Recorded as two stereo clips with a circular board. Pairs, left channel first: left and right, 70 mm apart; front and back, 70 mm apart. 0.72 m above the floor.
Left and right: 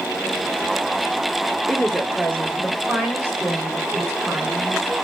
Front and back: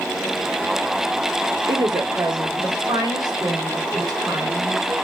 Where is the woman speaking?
170° right, 1.7 m; by 4.9 s 145° right, 4 m.